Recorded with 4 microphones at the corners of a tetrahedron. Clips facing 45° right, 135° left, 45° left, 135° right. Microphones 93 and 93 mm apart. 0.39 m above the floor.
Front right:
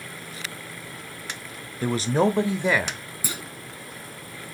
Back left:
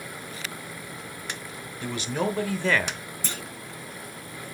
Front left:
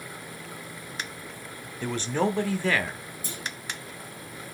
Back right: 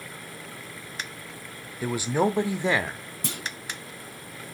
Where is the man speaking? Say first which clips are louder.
Front right 7 dB, back right 2 dB; 60° right, 1.0 m; by 3.0 s 125° right, 0.8 m.